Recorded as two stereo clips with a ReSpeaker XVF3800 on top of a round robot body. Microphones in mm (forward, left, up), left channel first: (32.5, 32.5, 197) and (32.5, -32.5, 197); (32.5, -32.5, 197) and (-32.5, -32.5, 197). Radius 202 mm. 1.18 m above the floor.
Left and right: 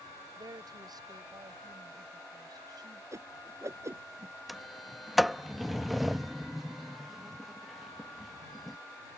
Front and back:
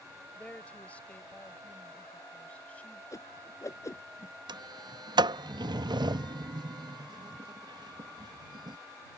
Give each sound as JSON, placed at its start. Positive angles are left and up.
{"t": 0.4, "sound": "a woman speaking", "azimuth_deg": -75}
{"t": 3.1, "sound": "a whoosh", "azimuth_deg": -45}
{"t": 4.5, "sound": "a sliding door", "azimuth_deg": 180}